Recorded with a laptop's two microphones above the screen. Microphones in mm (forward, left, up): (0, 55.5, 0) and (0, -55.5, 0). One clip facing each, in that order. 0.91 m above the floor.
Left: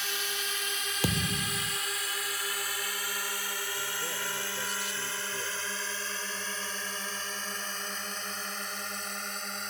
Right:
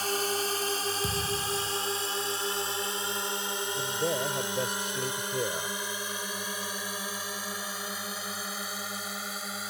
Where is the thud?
80° left.